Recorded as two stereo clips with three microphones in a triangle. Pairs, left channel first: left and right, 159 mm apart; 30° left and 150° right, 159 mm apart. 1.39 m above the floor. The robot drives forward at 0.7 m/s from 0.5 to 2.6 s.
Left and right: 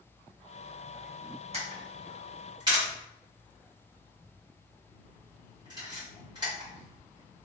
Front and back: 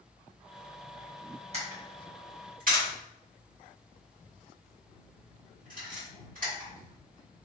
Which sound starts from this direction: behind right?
A camera shutter, at 1.5 s.